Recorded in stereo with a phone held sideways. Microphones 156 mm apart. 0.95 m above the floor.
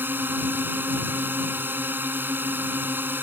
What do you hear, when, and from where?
0.0 s a drone: 10° right (ahead or behind)